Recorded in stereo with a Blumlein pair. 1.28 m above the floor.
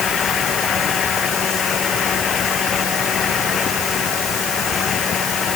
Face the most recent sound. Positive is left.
turn(degrees=25)